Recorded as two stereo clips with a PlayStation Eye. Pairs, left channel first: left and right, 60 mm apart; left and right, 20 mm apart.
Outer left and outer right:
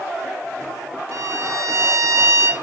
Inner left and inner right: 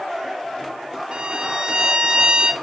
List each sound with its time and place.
1.1 s a violin: 60° right (ahead or behind), 2 m